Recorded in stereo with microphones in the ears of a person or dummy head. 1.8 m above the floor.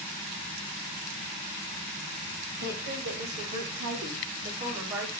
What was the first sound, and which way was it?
A woman speaking, 55° right (ahead or behind).